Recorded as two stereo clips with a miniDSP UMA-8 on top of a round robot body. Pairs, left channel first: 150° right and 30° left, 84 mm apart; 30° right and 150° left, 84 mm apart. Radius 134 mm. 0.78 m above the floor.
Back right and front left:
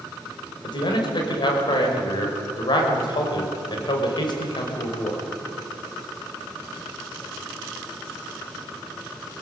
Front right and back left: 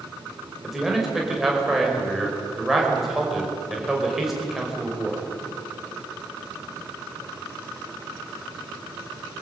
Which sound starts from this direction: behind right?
A man speaking, at 0.6 s.